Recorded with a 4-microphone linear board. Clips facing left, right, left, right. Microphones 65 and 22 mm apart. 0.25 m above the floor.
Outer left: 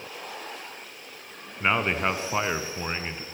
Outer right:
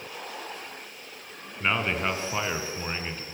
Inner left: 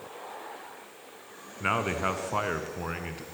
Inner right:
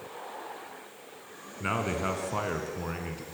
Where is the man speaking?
20° left (ahead or behind), 2.5 m.